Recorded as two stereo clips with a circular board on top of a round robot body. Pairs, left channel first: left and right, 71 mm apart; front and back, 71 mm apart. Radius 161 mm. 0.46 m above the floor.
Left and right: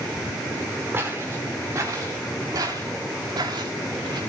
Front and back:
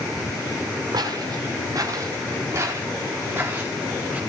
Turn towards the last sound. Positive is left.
turn(degrees=-105)